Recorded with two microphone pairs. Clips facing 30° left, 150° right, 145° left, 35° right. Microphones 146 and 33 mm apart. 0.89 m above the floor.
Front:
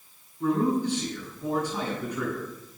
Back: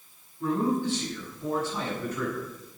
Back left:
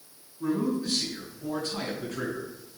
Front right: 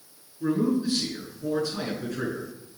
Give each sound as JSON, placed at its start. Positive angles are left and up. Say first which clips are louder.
{"t": 0.4, "sound": "a man speaking", "louder": "front 2 dB, front right 3 dB", "azimuth_deg": 105, "distance_m": 7.0}